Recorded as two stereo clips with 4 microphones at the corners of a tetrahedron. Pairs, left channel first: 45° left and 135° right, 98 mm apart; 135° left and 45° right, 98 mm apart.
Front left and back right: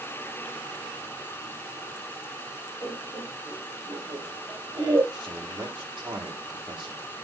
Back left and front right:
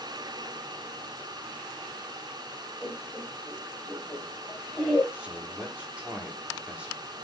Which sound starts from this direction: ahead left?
Laughter, at 2.8 s.